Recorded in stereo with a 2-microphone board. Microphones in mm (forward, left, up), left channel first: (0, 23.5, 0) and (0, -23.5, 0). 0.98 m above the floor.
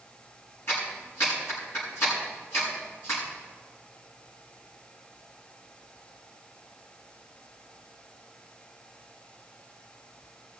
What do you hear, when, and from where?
0.7 s a clap: 60° left (ahead or behind), 7 m